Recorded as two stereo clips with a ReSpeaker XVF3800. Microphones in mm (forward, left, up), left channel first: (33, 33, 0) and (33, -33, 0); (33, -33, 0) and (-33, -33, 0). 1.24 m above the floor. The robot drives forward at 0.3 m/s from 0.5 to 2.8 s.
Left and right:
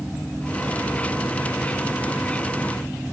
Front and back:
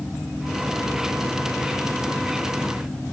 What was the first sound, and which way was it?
Only background noise.